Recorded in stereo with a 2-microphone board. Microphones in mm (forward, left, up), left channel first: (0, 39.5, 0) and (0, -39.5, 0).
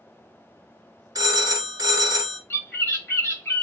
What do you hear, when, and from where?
1.1 s a phone ringing: 55° right (ahead or behind), 1.1 m
2.5 s a bird: 25° left (ahead or behind), 1.8 m